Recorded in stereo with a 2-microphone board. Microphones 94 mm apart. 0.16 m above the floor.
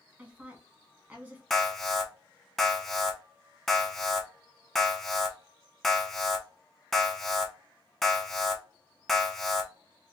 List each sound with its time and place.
0.2 s a woman speaking: 15° right (ahead or behind), 1.5 m
1.5 s an alarm: 5° left (ahead or behind), 0.8 m